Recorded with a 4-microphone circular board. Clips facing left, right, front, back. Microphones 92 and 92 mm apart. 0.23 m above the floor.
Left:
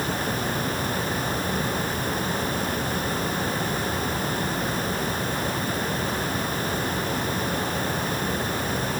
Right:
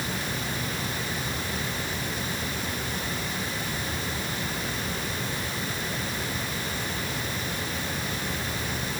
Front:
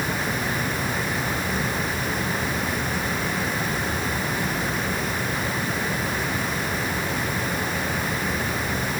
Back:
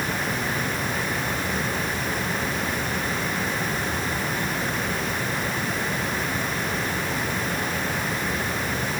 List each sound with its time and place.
Only background noise.